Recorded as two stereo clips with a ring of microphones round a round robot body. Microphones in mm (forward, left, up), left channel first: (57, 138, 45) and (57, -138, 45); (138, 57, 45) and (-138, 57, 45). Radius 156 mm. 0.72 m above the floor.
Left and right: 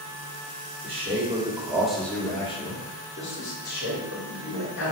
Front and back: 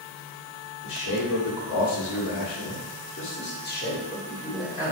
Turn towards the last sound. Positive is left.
turn(degrees=75)